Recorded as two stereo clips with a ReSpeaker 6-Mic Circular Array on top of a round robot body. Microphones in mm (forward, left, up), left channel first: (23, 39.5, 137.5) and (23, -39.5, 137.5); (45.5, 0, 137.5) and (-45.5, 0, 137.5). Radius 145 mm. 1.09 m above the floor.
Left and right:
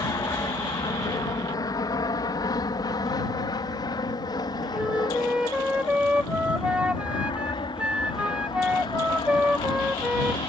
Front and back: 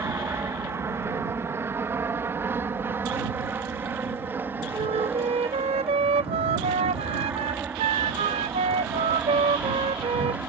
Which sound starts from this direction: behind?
A flute, at 4.8 s.